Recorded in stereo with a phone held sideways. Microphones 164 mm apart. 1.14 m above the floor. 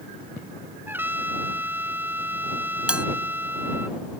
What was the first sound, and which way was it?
A trumpet, 10° right (ahead or behind).